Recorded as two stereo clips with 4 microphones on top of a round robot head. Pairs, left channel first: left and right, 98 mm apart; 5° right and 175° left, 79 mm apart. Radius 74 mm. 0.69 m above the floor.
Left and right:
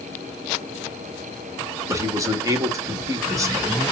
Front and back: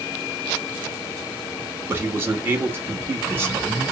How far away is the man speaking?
About 1.5 m.